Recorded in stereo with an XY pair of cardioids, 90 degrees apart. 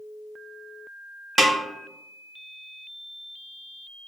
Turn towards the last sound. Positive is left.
turn(degrees=-30)